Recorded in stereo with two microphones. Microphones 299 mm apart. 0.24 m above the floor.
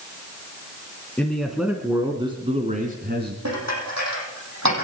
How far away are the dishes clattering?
About 6 m.